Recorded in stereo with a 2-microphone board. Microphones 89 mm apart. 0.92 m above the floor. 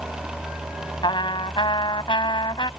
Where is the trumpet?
65° left (ahead or behind).